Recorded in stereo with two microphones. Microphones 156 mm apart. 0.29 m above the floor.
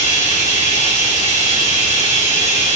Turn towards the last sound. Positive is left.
turn(degrees=55)  # may be behind; listen again after turning